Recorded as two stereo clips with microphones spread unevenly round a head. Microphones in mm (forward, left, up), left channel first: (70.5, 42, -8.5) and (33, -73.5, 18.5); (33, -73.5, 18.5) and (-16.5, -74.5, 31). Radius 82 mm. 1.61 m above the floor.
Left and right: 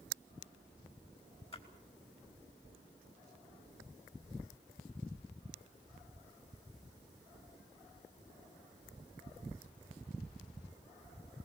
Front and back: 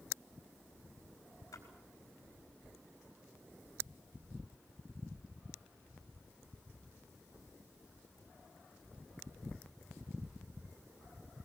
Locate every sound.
1.5 s a splash: 30° left, 5 m